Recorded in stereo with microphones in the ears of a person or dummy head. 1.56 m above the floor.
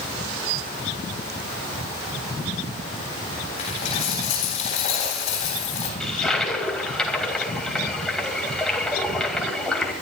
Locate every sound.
3.6 s a dropped coin: 35° left (ahead or behind), 3.5 m
6.0 s a toilet flushing: centre (ahead or behind), 2.5 m